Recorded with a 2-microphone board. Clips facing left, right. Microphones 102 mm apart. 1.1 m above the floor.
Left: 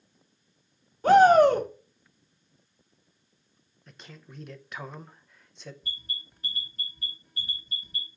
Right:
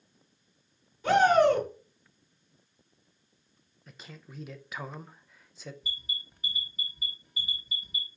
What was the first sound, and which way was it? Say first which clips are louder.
A shout: left 5 dB; 45° left (ahead or behind).